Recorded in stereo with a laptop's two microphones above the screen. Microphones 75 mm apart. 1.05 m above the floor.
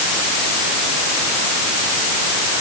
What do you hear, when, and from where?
Only background noise.